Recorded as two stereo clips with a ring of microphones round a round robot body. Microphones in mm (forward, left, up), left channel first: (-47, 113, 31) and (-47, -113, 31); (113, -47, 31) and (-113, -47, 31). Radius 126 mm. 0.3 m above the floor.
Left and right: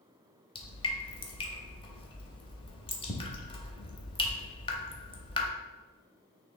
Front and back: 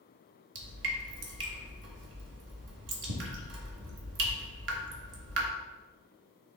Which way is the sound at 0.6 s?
155° left.